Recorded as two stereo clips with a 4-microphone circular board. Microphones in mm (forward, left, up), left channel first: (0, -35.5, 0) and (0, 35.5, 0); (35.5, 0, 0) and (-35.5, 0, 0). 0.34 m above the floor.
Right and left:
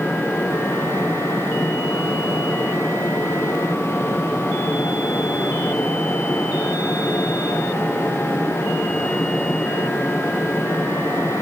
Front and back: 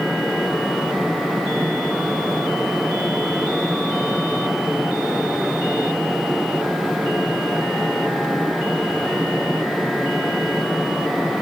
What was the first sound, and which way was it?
Only background noise.